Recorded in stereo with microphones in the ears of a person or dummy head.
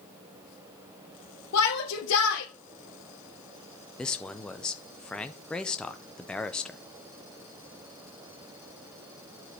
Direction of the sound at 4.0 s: 5° left (ahead or behind).